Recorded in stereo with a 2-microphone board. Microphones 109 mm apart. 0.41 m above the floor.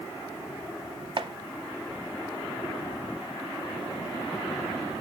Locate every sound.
1.2 s chopping: 50° right (ahead or behind), 0.6 m